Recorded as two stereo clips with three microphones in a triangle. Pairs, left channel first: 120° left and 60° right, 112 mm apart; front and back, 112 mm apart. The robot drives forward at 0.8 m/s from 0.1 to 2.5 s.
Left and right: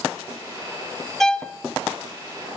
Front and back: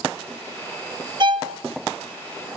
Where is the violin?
155° right, 0.5 m; by 1.6 s 165° right, 0.8 m.